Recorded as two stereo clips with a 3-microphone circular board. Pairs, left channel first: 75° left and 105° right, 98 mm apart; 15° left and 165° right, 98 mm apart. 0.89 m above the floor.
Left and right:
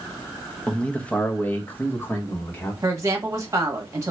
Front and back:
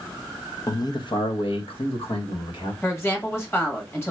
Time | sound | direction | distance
0.7 | a man speaking | 5° right | 0.6 m
2.8 | a woman speaking | 45° right | 1.5 m